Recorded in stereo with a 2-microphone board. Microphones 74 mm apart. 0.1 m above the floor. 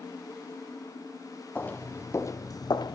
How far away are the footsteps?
About 1.1 m.